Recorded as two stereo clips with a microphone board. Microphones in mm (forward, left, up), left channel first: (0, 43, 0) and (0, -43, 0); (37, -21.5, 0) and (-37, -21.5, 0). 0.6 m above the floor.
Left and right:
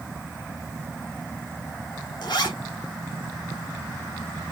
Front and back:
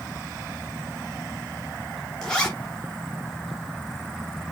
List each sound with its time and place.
2.2 s a zipper: 80° left, 1.2 m